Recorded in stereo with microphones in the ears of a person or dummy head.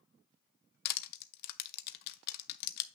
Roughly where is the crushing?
Left.